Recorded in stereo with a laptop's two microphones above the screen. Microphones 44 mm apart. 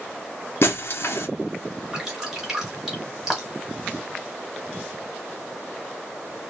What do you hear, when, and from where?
0.6 s breaking glass: 65° left (ahead or behind), 0.8 m
1.9 s dripping: 5° right (ahead or behind), 1.2 m